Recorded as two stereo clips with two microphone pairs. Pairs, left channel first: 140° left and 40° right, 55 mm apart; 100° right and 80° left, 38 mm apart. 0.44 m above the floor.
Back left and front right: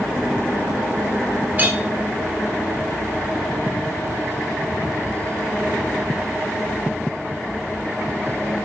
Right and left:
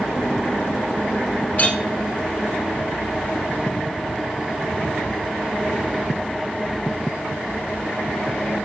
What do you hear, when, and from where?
1.6 s a clink: 75° right, 0.6 m